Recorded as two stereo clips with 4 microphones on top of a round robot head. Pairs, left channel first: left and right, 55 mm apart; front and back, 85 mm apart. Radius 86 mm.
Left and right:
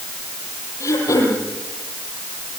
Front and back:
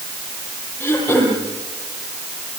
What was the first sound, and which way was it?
Throat clearing, 65° left.